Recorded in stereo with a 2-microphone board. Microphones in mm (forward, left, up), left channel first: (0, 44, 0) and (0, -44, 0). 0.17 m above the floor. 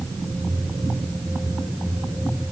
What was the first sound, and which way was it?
Only background noise.